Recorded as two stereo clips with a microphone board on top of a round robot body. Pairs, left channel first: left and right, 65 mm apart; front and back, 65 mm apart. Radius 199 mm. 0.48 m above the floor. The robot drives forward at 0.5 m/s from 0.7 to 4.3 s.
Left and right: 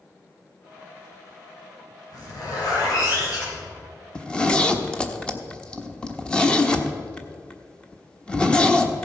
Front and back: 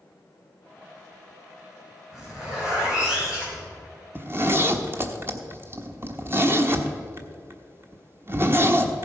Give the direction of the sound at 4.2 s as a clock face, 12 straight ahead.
7 o'clock.